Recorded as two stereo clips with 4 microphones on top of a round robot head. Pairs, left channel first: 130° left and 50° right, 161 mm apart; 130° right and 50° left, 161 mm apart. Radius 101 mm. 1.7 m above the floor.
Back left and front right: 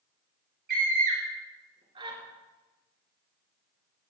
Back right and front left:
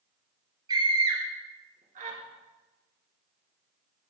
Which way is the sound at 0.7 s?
15° right.